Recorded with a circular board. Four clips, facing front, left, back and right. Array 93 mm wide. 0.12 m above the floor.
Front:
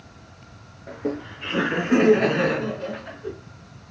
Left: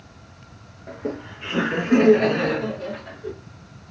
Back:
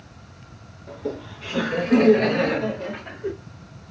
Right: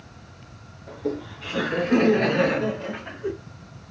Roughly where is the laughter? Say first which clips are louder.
Right 1 dB, front 2 dB; ahead left.